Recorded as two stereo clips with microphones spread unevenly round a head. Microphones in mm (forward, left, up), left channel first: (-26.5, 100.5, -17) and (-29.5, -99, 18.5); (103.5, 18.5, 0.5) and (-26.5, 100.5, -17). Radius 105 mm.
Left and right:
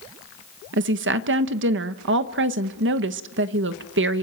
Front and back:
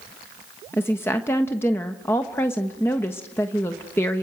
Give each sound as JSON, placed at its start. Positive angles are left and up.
{"t": 0.7, "sound": "a woman speaking", "azimuth_deg": -115, "distance_m": 1.1}